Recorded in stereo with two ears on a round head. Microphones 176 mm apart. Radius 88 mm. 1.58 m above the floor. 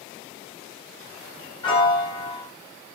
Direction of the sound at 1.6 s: 25° left (ahead or behind).